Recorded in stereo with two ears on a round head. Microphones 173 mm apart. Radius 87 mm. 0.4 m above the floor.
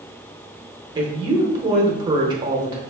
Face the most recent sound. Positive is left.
turn(degrees=-20)  # may be behind; listen again after turning